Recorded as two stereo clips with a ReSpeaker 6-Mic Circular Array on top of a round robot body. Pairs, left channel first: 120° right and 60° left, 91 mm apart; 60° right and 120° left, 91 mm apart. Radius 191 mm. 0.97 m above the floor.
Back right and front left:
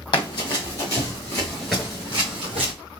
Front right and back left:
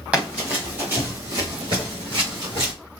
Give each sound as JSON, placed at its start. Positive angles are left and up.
{"t": 0.1, "sound": "running footsteps", "azimuth_deg": -165, "distance_m": 2.5}